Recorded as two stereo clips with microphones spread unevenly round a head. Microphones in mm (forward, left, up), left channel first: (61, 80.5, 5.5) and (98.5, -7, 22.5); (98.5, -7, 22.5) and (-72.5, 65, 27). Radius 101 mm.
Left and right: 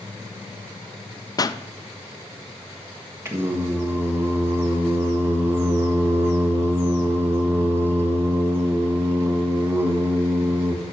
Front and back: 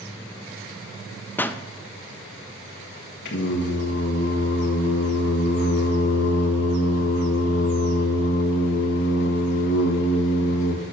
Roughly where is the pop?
Ahead left.